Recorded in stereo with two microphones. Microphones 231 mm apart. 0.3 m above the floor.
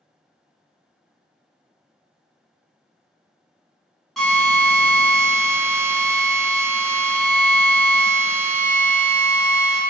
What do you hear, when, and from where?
4.2 s a drill: centre (ahead or behind), 1.7 m